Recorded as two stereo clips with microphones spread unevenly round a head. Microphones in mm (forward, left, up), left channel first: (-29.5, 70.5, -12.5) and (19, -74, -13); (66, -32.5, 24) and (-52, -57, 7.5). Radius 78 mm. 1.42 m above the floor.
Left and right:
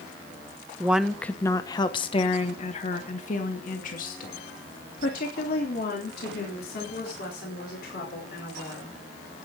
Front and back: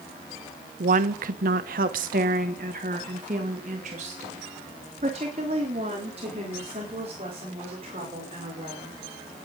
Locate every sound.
0.8 s a woman speaking: 150° right, 0.8 m; by 9.0 s 135° left, 5.5 m